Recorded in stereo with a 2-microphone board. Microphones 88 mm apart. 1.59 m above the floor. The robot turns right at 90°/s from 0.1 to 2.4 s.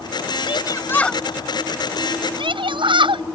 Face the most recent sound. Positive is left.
turn(degrees=-70)  # may be behind; listen again after turning